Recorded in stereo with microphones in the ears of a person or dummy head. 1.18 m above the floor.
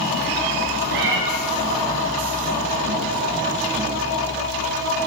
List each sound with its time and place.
0.9 s a cat meowing: 70° right (ahead or behind), 2.5 m